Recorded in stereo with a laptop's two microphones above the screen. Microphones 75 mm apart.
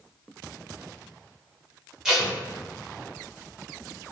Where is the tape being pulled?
5° right (ahead or behind), 1.3 m.